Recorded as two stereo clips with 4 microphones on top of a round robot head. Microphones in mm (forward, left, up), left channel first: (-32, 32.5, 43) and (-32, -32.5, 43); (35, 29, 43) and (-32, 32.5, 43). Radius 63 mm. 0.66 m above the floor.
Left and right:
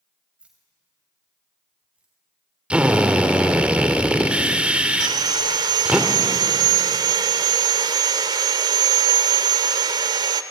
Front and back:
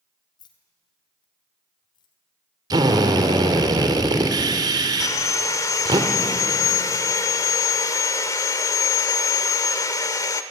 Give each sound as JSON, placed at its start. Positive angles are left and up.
{"t": 0.4, "sound": "keys jangling", "azimuth_deg": -10, "distance_m": 2.5}
{"t": 2.7, "sound": "a drill", "azimuth_deg": -160, "distance_m": 2.0}
{"t": 5.0, "sound": "sawing", "azimuth_deg": -60, "distance_m": 0.7}